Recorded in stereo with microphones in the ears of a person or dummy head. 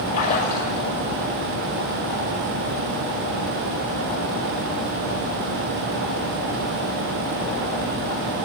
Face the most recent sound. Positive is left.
turn(degrees=45)  # may be behind; listen again after turning